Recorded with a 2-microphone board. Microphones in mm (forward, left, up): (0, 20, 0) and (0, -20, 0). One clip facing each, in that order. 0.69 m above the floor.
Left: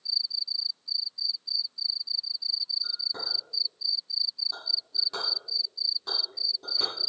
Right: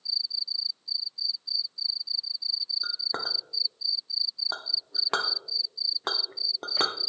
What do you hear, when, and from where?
2.8 s a clink: 65° right (ahead or behind), 0.7 m